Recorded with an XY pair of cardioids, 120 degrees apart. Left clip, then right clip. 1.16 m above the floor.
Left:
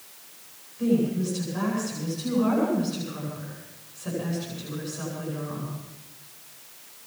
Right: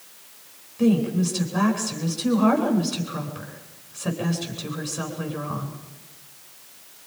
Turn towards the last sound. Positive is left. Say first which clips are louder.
# right 3 dB
turn(degrees=-60)